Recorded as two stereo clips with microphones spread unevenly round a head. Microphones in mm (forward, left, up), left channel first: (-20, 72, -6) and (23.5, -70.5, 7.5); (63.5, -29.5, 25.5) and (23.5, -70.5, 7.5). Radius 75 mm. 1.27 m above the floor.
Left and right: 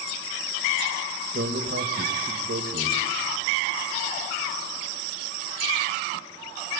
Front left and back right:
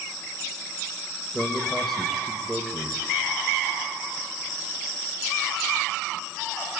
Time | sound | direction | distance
1.3 | a man speaking | 50° right | 1.7 m